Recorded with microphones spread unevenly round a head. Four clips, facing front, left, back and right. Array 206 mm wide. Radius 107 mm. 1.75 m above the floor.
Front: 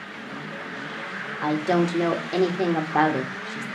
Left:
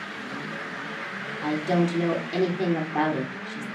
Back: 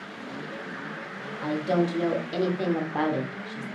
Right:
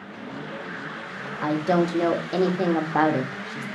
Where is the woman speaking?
50° right, 0.7 m.